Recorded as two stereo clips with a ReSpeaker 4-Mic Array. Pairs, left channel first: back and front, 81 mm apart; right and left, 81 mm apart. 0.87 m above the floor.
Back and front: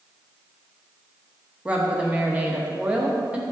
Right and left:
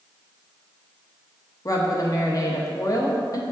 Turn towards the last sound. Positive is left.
turn(degrees=-70)